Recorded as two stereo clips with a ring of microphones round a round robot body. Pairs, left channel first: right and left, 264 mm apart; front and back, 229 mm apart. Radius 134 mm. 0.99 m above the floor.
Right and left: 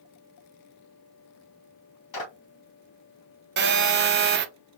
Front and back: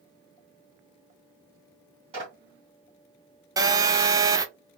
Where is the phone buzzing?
110° left, 0.6 m.